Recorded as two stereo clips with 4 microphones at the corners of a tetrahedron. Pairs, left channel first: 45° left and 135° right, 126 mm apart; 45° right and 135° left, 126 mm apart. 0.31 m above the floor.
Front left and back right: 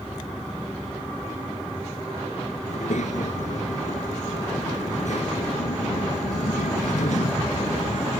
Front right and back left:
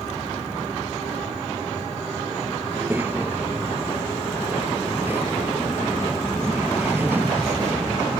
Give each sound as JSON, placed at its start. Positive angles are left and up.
{"t": 2.7, "sound": "a child speaking", "azimuth_deg": 60}